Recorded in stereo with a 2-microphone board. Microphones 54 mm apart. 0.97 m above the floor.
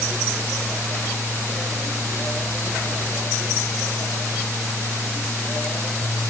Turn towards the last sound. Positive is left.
No sound to turn to.